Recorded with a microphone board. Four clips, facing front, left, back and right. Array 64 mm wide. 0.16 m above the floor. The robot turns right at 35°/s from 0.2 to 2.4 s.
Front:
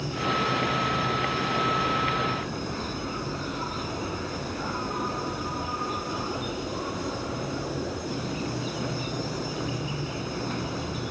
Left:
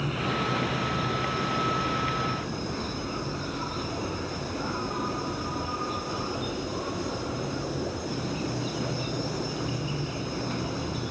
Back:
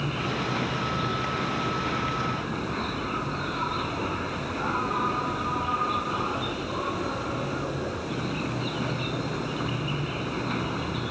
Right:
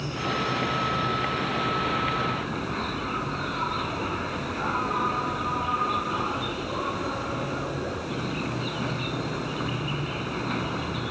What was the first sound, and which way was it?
An insect, 160° left.